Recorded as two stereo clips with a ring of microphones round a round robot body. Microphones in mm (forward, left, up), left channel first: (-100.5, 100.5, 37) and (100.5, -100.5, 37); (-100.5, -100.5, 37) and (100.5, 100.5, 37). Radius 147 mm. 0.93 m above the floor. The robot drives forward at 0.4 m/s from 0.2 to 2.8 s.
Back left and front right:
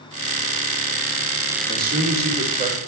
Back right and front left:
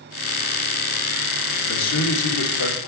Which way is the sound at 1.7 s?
100° right.